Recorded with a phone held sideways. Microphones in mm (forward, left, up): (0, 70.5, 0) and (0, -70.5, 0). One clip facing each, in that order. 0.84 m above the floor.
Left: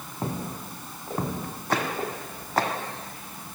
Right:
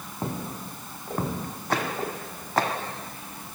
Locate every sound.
Only background noise.